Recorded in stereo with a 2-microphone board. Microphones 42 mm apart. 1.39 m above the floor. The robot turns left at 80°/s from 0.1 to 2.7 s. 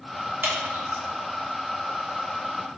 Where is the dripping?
55° right (ahead or behind), 1.5 m; by 1.0 s 50° right (ahead or behind), 1.5 m.